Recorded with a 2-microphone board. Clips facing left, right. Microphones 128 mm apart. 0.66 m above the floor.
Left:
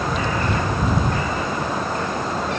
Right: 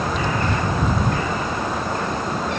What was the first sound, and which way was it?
Only background noise.